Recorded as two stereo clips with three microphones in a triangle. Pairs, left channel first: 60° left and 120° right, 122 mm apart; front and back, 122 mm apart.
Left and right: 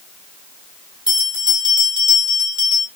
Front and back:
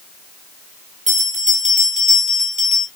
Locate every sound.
1.1 s a bell: 170° right, 1.9 m